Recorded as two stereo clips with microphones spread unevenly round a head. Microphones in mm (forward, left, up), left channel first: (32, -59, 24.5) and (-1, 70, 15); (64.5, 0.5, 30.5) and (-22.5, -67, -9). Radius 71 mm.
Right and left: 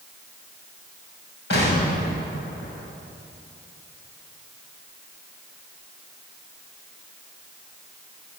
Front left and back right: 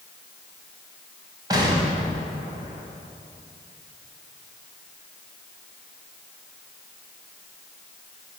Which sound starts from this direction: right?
An explosion, at 1.5 s.